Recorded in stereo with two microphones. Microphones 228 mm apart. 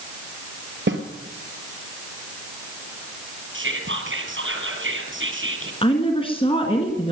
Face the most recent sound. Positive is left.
turn(degrees=25)  # may be behind; listen again after turning